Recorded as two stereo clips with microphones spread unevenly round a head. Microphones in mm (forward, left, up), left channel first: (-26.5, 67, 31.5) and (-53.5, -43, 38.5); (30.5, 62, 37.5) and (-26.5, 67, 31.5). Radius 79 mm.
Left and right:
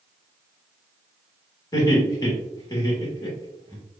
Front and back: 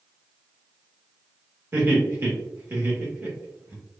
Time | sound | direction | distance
1.7 | laughter | 130° left | 1.9 m